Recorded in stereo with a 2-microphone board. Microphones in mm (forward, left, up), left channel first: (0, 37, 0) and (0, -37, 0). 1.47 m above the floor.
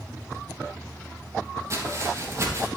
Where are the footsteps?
40° right (ahead or behind), 3.5 m.